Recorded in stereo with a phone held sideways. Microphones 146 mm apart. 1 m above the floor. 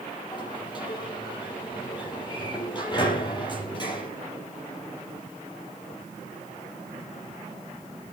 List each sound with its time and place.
0.3 s a sliding door: 30° left (ahead or behind), 5.5 m